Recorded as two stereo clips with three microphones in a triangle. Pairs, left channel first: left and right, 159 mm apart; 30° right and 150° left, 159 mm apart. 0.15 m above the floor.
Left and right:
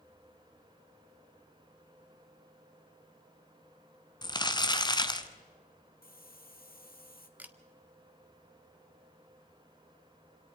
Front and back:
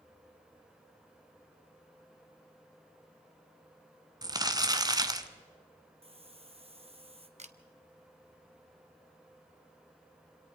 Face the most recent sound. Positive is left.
turn(degrees=-170)